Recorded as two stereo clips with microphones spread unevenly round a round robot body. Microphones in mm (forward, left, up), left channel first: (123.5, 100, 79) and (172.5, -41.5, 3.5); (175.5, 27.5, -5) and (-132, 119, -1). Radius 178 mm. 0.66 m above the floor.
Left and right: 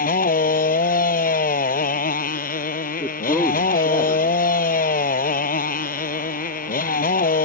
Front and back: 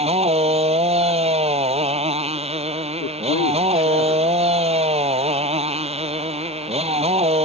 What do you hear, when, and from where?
0.0 s a motorcycle: 90° left
3.0 s a man speaking: 25° left